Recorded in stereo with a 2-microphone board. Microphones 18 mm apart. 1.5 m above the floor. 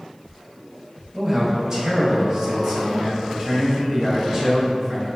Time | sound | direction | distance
1.1 | a man speaking | 30° right (ahead or behind) | 0.7 m